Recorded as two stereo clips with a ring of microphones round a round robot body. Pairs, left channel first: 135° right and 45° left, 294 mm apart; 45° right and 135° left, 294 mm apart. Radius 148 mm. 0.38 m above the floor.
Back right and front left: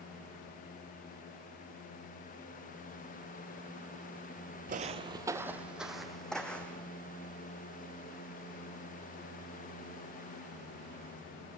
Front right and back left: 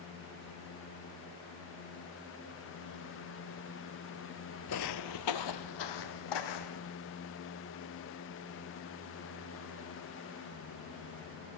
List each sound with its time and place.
4.7 s footsteps: 15° right, 0.6 m; by 6.9 s 50° right, 1.9 m